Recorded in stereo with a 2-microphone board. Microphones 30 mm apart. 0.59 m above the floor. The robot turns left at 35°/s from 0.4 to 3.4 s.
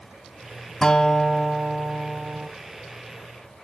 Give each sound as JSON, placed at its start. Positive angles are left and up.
{"t": 0.8, "sound": "a guitar", "azimuth_deg": 25, "distance_m": 1.2}